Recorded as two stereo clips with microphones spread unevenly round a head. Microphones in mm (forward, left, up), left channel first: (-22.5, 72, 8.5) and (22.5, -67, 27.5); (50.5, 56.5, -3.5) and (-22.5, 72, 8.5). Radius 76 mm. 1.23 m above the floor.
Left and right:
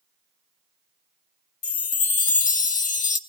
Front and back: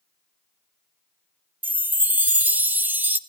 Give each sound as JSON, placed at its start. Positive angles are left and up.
{"t": 1.6, "sound": "a chime", "azimuth_deg": 100, "distance_m": 1.1}